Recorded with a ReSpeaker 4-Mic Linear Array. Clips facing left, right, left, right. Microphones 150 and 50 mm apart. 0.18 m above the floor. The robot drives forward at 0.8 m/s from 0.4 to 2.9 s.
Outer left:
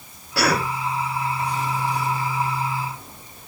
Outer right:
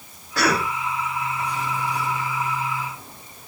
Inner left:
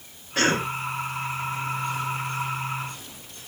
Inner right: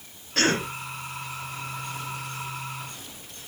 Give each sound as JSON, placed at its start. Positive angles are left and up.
{"t": 0.3, "sound": "a cough", "side_deg": 10, "distance_m": 7.0}